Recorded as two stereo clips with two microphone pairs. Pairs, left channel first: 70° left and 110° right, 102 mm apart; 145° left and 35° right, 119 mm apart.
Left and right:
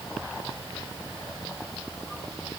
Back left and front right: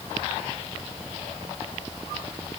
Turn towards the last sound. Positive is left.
No sound to turn to.